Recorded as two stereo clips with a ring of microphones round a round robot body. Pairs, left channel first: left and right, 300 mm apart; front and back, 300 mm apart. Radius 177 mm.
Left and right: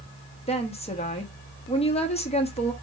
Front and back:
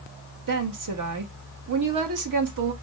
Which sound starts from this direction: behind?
A woman speaking, at 0.5 s.